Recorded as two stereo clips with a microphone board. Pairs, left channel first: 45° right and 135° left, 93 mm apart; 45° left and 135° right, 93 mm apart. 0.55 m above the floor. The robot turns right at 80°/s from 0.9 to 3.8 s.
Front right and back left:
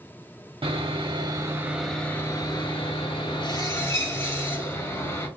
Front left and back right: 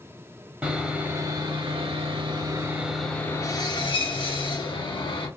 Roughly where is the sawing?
Behind left.